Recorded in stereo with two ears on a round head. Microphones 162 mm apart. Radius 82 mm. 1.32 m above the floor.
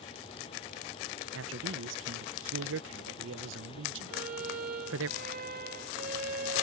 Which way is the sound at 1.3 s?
80° right.